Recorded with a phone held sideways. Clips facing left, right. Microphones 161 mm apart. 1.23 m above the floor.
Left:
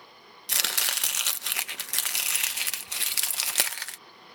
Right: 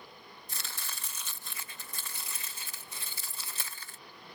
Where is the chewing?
No chewing in this recording.